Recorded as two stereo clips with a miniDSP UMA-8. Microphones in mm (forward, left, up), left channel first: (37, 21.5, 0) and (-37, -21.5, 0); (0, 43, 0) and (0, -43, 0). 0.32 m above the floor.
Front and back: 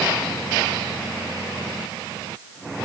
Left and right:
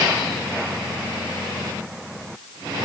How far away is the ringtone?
No ringtone in this recording.